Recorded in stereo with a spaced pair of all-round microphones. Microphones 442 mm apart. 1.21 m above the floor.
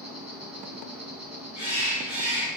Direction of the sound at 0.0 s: 35° right (ahead or behind).